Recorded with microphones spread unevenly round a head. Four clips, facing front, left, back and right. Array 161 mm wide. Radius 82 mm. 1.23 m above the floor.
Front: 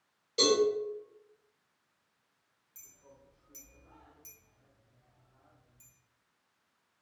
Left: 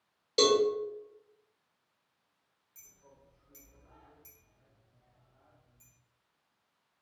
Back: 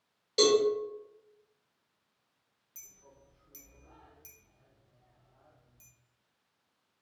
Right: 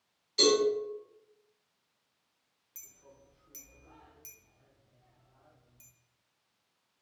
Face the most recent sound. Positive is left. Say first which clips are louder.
# right 3 dB, front 1 dB
turn(degrees=-120)